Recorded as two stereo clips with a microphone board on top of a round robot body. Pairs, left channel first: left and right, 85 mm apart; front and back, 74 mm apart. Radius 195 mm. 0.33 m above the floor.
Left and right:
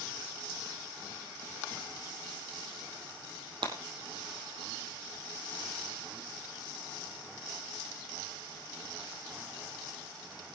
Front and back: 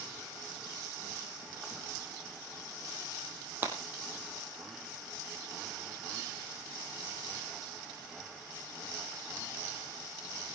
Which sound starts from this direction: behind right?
Breaking glass, at 3.6 s.